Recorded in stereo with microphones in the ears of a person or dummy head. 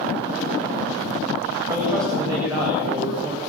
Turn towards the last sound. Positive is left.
turn(degrees=-15)  # may be behind; listen again after turning